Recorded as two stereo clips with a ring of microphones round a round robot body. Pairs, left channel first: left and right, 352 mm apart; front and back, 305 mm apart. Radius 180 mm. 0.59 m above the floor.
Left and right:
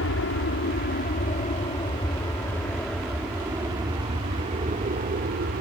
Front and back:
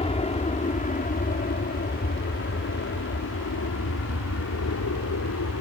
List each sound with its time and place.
0.0 s an aircraft: 60° left; by 5.6 s 35° right